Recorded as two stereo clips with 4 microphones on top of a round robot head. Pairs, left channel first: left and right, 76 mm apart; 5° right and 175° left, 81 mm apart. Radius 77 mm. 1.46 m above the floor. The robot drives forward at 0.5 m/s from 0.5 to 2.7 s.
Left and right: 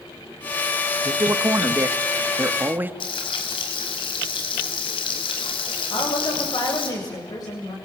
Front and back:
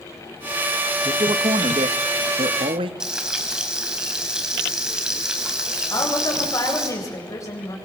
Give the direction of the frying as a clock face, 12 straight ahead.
9 o'clock.